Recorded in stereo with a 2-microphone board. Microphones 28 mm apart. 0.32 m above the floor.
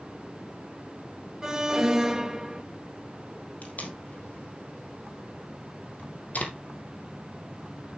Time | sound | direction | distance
1.4 | an alarm | 20° right (ahead or behind) | 1.6 m
3.6 | tape being pulled | 75° left (ahead or behind) | 3 m